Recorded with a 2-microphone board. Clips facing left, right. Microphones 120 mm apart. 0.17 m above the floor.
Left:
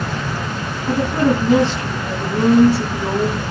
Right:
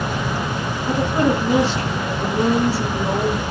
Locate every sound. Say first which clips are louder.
0.9 s a woman speaking: left 2 dB; 20° left (ahead or behind), 1.4 m